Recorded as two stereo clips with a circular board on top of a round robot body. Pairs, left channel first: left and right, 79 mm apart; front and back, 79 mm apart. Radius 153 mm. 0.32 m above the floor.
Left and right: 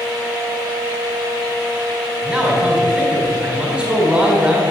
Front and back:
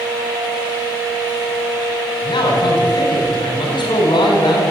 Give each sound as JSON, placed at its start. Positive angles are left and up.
{"t": 2.2, "sound": "a man speaking", "azimuth_deg": -15, "distance_m": 3.5}